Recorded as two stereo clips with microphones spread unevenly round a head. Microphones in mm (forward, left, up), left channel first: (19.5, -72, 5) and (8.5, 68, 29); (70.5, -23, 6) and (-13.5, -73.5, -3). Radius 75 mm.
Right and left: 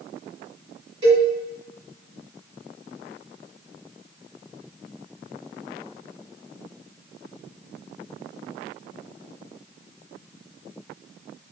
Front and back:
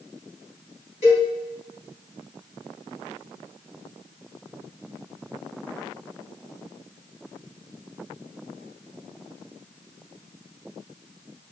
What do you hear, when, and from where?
1.0 s a cowbell: 45° left, 1.7 m